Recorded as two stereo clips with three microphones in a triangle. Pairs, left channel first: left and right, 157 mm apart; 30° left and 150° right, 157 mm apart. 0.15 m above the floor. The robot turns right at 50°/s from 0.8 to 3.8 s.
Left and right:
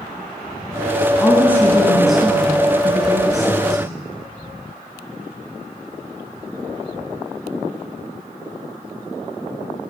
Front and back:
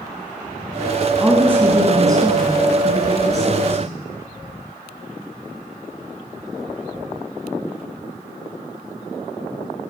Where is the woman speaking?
140° left, 1.2 m; by 4.0 s 90° right, 1.2 m.